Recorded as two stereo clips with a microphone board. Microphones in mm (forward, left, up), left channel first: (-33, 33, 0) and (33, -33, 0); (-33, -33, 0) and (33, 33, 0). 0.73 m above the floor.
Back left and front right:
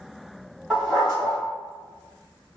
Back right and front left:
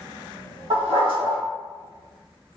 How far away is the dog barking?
About 1.8 m.